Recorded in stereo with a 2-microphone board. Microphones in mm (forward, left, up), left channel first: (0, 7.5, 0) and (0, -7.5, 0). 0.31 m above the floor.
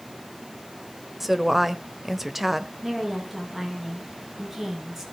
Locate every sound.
1.2 s a woman speaking: 10° right (ahead or behind), 0.9 m
2.8 s a woman speaking: 25° right (ahead or behind), 5.5 m